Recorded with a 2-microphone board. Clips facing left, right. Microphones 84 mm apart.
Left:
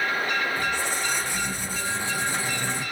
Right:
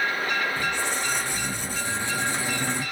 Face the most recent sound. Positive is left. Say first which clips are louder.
# even
turn(degrees=-70)  # may be behind; listen again after turning